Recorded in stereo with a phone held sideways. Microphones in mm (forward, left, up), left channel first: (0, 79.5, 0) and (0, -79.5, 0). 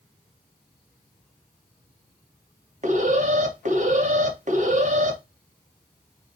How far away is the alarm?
About 1.1 m.